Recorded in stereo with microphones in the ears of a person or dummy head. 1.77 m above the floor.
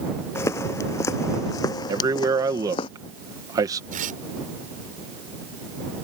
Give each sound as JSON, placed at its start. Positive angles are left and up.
{"t": 0.3, "sound": "footsteps", "side_deg": 20}
{"t": 1.9, "sound": "a man speaking", "side_deg": -20}
{"t": 3.9, "sound": "tearing paper", "side_deg": -45}